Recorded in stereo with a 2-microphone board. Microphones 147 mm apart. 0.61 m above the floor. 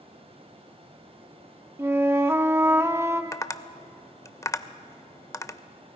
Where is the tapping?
20° left (ahead or behind), 0.6 m.